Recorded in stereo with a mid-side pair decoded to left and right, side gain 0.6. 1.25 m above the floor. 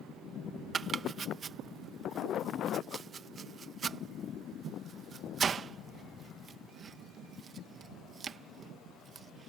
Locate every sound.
0.7 s chopping: 30° right